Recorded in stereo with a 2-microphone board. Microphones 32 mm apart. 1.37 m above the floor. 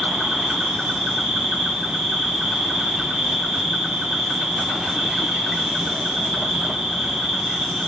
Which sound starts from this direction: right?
An insect, at 0.0 s.